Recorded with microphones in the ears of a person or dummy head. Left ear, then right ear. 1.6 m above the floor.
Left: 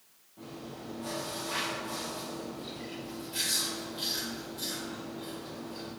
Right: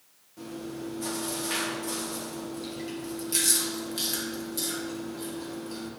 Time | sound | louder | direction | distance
0.4 | chewing | right 6 dB | 75° right (ahead or behind) | 1.8 m